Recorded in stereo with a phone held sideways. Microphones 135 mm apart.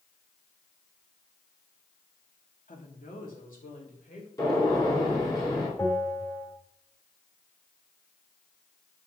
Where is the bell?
25° left (ahead or behind), 2 m.